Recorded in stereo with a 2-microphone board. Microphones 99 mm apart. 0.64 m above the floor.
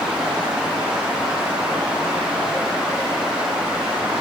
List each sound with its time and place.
Only background noise.